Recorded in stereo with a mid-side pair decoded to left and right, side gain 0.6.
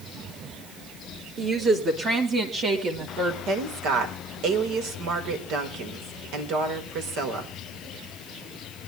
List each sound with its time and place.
1.4 s a woman speaking: 40° right, 4 m; by 3.4 s 55° right, 3 m
3.5 s a woman speaking: 70° right, 4.5 m